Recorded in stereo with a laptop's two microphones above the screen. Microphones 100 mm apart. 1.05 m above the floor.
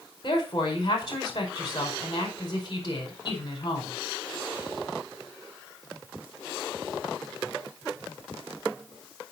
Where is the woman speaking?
45° left (ahead or behind), 5.5 m.